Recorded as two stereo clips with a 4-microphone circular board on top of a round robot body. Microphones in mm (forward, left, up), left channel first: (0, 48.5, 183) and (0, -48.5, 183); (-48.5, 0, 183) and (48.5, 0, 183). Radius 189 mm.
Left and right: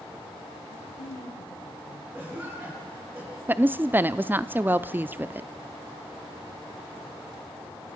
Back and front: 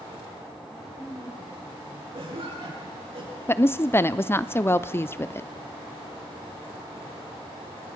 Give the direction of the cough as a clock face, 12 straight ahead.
1 o'clock.